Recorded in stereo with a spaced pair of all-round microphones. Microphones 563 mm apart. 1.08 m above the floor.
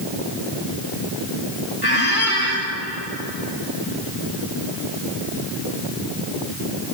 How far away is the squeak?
About 2 m.